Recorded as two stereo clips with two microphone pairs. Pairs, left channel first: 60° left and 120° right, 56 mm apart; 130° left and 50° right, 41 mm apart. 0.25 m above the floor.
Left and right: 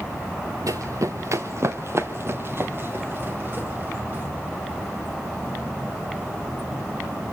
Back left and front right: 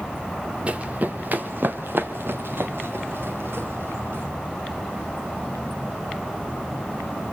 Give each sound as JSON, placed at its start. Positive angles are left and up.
{"t": 0.7, "sound": "running footsteps", "azimuth_deg": -105, "distance_m": 1.1}